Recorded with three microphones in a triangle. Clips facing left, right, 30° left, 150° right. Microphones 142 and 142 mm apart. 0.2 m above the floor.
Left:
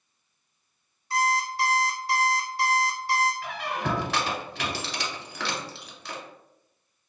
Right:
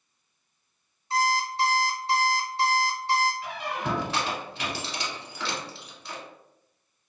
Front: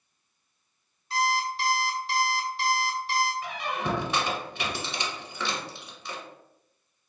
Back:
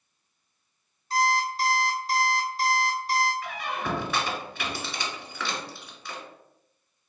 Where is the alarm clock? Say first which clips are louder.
Even, back 2 dB; 140° right, 0.5 m.